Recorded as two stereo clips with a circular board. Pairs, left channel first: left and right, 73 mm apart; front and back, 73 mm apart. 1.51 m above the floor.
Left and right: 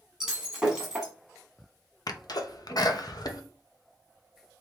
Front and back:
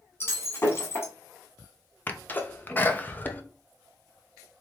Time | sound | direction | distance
0.2 | breaking glass | 10° right | 1.6 m
2.1 | a sneeze | 65° left | 0.8 m